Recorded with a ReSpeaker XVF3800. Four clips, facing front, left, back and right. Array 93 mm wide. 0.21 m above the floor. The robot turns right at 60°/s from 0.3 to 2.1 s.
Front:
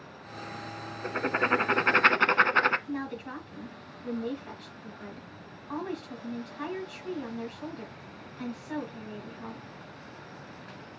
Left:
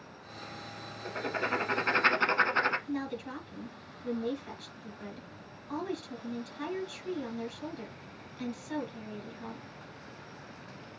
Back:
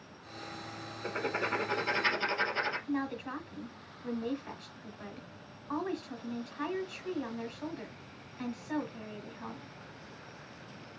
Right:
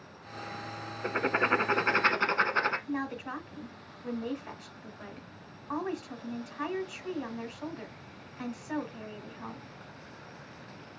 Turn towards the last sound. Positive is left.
turn(degrees=-100)